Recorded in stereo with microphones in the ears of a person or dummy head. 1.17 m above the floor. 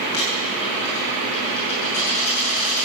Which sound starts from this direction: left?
A dropped coin, at 0.1 s.